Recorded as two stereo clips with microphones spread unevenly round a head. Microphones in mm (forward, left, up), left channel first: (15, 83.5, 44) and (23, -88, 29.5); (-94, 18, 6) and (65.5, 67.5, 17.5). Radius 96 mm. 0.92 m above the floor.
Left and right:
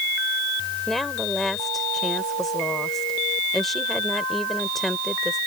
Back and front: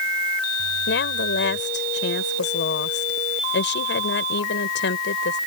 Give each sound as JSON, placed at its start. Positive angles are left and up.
{"t": 0.9, "sound": "a woman speaking", "azimuth_deg": 180}